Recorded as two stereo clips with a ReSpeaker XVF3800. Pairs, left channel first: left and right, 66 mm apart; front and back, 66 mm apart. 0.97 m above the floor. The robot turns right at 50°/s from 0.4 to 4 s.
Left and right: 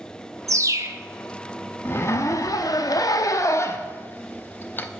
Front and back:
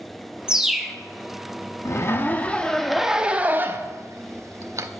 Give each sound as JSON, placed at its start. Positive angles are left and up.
{"t": 0.5, "sound": "a bird", "azimuth_deg": -105, "distance_m": 0.7}
{"t": 1.9, "sound": "a zipper", "azimuth_deg": 40, "distance_m": 0.7}